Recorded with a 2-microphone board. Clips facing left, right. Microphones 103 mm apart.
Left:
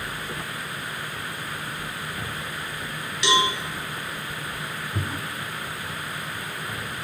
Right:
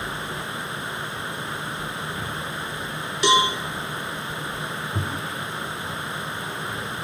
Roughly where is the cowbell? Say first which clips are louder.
Right 3 dB; right.